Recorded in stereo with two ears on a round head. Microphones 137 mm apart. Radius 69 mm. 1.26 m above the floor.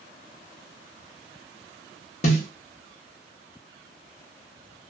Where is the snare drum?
45° left (ahead or behind), 0.8 m.